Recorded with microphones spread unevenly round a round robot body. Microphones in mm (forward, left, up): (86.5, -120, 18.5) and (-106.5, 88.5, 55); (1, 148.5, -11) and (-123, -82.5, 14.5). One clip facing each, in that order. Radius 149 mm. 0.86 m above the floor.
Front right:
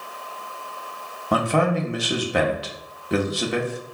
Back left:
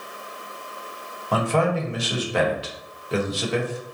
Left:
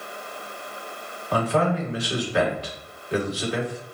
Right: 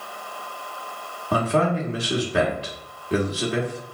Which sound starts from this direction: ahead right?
A man speaking, at 1.3 s.